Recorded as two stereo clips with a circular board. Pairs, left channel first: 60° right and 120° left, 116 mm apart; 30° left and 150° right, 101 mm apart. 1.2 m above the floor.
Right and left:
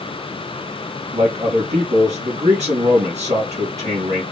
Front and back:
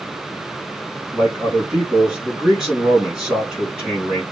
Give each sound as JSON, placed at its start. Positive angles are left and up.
{"t": 1.1, "sound": "a man speaking", "azimuth_deg": 125, "distance_m": 3.0}